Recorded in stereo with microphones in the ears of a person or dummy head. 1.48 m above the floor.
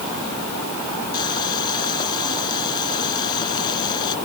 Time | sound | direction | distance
1.1 | boiling | 25° left (ahead or behind) | ?